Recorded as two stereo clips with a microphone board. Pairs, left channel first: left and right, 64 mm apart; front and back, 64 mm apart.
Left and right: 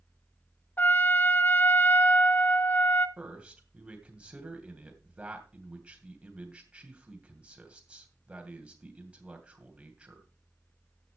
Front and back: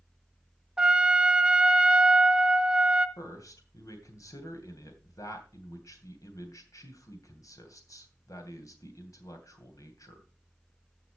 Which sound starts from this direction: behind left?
A trumpet, at 0.8 s.